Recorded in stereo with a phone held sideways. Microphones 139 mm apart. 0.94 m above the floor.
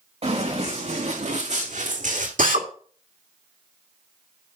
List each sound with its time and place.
0.2 s running footsteps: 45° right (ahead or behind), 4 m; by 2.3 s 70° right (ahead or behind), 2.5 m
2.4 s a drill: 75° right (ahead or behind), 1.9 m